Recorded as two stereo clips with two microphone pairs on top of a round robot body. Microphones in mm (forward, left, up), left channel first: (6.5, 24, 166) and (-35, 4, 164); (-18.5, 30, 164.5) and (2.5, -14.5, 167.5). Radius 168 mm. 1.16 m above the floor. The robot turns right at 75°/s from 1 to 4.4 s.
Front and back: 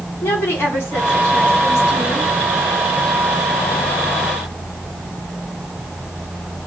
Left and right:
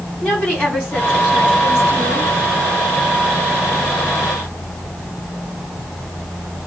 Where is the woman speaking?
55° left, 4 m; by 2.3 s 155° left, 4 m.